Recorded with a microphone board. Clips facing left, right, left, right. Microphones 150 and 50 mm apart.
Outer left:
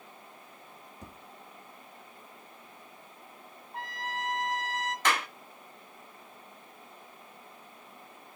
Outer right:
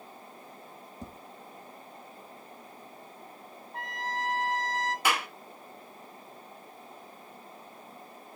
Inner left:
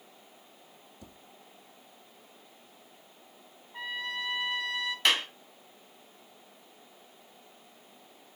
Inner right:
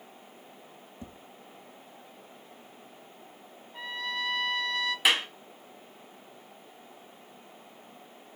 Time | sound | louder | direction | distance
1.0 | tapping | outer right 6 dB, inner right 7 dB | 35° right (ahead or behind) | 1.0 m
3.7 | a trumpet | outer right 2 dB, inner right 1 dB | 5° left (ahead or behind) | 1.6 m
5.0 | a clap | outer left 1 dB, inner right 1 dB | 10° right (ahead or behind) | 0.9 m